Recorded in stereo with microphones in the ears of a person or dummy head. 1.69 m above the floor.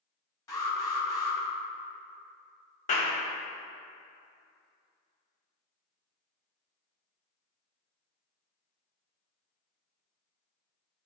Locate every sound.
0.5 s an alarm: 20° left (ahead or behind), 2.5 m
2.9 s a clap: 40° left (ahead or behind), 1.3 m